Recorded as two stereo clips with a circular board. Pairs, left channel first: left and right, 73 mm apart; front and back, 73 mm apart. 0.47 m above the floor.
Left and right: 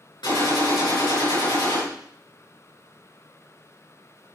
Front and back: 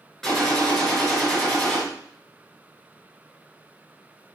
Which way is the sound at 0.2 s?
85° left.